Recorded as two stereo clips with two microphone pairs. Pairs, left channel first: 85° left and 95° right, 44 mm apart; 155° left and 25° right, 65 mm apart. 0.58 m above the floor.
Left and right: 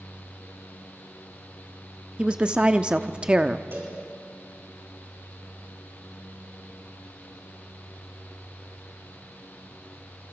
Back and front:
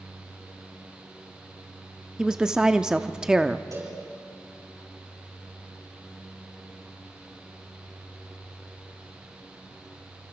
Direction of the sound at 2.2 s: 100° right.